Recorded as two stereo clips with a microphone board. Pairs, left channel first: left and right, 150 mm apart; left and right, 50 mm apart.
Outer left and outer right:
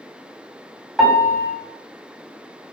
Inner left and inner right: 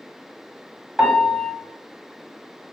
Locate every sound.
1.0 s a piano: centre (ahead or behind), 1.4 m